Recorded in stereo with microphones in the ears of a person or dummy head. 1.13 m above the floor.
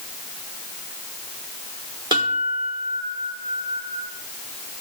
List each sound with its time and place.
2.1 s a guitar: 15° right (ahead or behind), 1.3 m